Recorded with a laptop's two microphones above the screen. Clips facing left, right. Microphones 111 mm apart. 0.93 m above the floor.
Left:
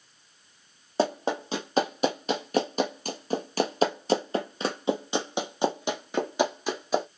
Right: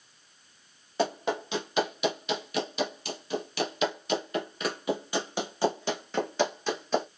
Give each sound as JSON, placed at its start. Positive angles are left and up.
{"t": 1.0, "sound": "running footsteps", "side_deg": 35, "distance_m": 1.8}